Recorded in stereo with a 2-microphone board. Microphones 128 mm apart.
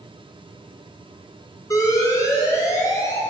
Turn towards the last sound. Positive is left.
turn(degrees=25)  # may be behind; listen again after turning